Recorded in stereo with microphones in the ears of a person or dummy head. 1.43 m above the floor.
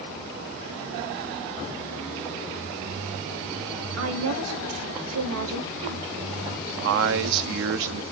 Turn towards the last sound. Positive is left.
turn(degrees=-70)  # may be behind; listen again after turning